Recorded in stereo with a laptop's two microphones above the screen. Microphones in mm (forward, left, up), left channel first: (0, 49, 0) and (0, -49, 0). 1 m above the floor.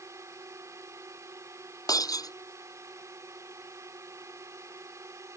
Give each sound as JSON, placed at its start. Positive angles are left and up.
{"t": 0.0, "sound": "a drone", "side_deg": -30}
{"t": 1.9, "sound": "breaking glass", "side_deg": 40}